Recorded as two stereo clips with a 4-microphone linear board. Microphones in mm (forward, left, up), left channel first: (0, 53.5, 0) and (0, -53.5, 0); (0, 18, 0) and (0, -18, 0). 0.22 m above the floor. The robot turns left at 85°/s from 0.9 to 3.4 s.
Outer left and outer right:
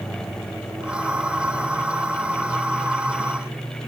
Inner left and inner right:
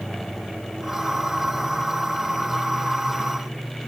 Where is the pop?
I don't hear a pop.